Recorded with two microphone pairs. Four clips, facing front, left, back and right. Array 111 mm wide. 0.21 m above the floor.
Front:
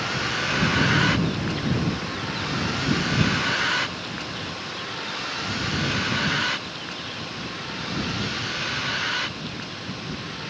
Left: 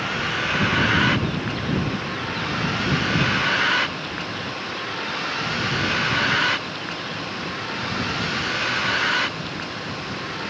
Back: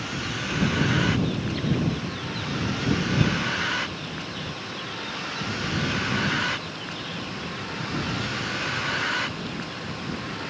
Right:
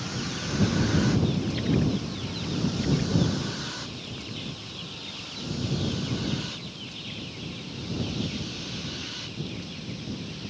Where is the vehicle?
55° left; by 10.5 s 95° left.